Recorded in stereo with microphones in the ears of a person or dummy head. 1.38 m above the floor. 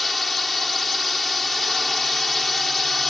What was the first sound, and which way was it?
A drone, centre (ahead or behind).